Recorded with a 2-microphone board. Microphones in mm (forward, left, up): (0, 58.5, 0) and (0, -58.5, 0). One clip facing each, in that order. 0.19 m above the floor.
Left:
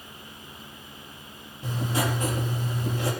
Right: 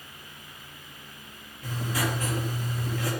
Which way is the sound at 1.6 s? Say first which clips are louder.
Left 3 dB; 25° left (ahead or behind).